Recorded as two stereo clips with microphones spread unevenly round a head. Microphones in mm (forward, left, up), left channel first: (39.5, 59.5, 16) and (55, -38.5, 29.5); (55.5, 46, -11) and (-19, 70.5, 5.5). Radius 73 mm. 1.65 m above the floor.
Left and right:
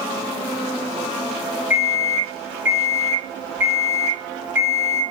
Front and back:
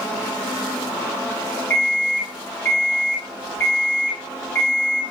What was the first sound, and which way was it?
An alarm clock, 85° right.